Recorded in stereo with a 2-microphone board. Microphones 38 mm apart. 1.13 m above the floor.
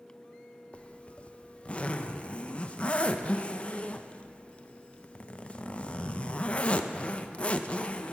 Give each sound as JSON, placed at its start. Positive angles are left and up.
{"t": 0.7, "sound": "a zipper", "side_deg": 30, "distance_m": 0.5}